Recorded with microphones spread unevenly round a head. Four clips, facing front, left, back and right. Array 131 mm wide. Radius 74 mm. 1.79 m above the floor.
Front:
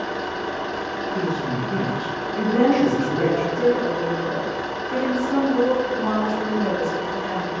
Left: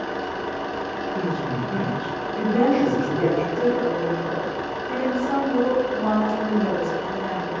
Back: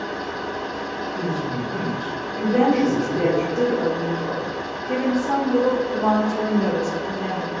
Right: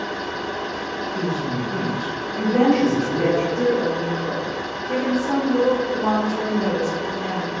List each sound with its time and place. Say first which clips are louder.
0.0 s an engine running: even, front 1 dB; 30° left, 1.0 m
1.1 s a woman speaking: right 2 dB, front 1 dB; 5° right, 1.6 m
2.5 s a woman speaking: right 2 dB, even; 175° right, 1.1 m